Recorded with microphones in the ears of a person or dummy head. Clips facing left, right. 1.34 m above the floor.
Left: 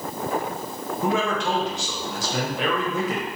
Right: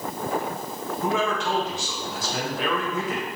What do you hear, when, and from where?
1.0 s a man speaking: 55° left (ahead or behind), 1.0 m